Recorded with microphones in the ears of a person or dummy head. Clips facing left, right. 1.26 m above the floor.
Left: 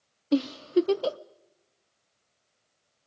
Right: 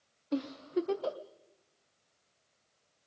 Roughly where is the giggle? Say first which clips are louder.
Left 9 dB; left.